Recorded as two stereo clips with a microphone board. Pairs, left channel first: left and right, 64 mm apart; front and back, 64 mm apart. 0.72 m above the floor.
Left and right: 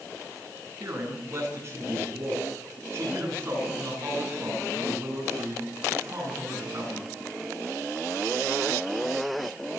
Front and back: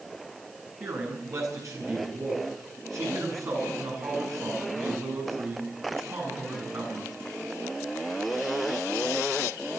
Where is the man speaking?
140° right, 9.5 m.